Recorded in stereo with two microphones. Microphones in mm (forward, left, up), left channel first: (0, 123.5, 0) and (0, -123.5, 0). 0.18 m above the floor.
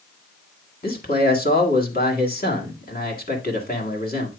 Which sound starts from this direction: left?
A man speaking, at 0.8 s.